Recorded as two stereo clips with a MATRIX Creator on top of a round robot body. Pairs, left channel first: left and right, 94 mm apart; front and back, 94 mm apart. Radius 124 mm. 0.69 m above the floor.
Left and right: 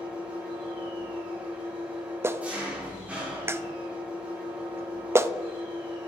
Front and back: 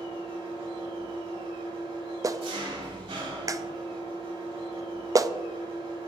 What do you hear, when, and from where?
0.0 s an engine running: 165° right, 4.5 m
2.2 s a clap: 145° right, 0.6 m